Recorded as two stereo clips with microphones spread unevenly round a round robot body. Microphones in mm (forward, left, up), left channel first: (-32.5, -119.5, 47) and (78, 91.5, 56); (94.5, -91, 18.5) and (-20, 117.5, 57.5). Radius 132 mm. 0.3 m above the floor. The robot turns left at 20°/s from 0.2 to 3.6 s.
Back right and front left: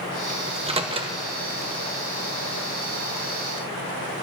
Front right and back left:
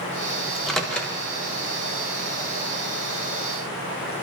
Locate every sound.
0.5 s a microwave: 15° left, 1.1 m; by 1.2 s 5° left, 1.1 m